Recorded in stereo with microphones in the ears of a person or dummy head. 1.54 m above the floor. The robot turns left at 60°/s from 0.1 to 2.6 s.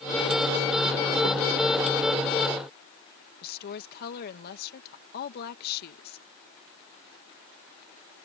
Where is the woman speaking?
55° left (ahead or behind).